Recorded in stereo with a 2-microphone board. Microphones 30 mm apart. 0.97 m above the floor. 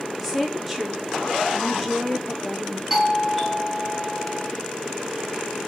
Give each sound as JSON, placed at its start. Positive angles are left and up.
{"t": 0.2, "sound": "a woman speaking", "side_deg": -5, "distance_m": 0.8}
{"t": 2.9, "sound": "a doorbell", "side_deg": 5, "distance_m": 1.1}